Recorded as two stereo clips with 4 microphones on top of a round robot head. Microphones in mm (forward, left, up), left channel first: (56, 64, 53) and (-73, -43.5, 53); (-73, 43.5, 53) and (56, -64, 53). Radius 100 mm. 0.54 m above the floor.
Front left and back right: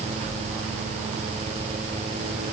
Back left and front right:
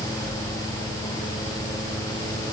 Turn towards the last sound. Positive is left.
No sound to turn to.